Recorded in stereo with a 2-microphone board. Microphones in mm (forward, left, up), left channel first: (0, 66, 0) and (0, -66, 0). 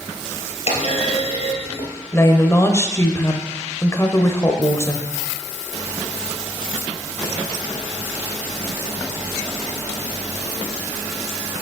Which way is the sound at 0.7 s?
50° left (ahead or behind).